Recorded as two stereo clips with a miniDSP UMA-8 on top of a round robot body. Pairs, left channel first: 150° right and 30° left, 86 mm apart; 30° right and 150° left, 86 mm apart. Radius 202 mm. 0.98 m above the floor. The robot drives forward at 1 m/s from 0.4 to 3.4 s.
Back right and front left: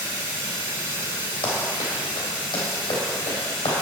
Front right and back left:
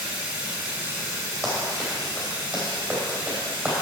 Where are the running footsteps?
125° right, 3 m; by 3.7 s 140° right, 3.5 m.